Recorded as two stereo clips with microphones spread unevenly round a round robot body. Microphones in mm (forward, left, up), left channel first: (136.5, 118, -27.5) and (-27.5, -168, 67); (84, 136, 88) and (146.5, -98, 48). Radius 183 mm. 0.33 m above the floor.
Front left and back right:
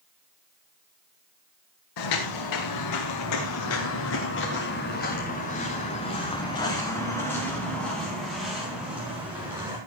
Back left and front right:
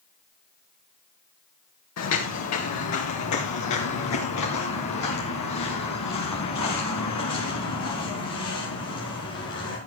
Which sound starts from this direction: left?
Footsteps, at 2.0 s.